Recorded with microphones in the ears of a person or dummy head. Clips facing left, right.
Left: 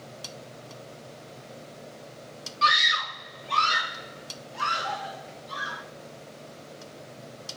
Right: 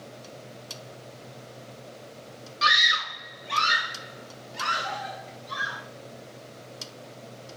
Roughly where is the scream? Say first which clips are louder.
Left 2 dB; centre.